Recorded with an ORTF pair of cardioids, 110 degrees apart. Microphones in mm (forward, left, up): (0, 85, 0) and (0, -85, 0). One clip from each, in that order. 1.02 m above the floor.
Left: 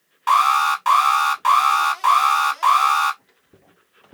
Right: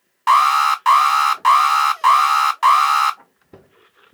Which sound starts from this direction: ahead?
An alarm, at 0.3 s.